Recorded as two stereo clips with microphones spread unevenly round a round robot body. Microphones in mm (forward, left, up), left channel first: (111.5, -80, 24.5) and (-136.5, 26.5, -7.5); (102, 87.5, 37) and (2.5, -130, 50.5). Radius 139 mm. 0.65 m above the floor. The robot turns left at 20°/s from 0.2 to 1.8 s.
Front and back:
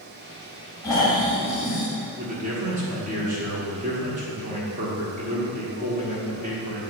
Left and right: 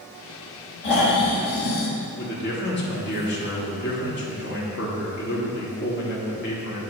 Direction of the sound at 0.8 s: 60° left.